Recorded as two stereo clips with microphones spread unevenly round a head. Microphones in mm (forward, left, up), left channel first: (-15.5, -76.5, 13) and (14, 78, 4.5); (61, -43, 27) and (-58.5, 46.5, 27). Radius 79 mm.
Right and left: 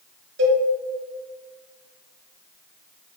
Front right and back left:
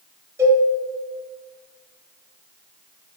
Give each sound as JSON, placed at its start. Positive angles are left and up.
{"t": 0.4, "sound": "a cowbell", "azimuth_deg": 70, "distance_m": 1.6}